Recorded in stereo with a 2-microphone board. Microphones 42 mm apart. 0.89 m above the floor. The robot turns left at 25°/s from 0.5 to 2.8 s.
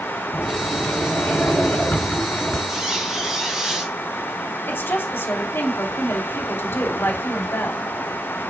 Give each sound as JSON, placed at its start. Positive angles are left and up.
{"t": 0.3, "sound": "a sliding door", "azimuth_deg": 90, "distance_m": 6.5}
{"t": 2.7, "sound": "a squeak", "side_deg": -10, "distance_m": 3.5}
{"t": 4.7, "sound": "a woman speaking", "side_deg": 70, "distance_m": 3.0}